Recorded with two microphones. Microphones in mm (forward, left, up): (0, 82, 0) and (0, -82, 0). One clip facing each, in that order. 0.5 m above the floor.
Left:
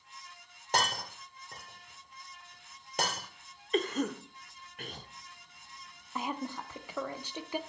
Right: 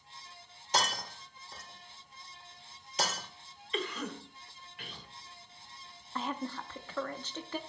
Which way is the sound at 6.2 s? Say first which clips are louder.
Even; 10° left (ahead or behind).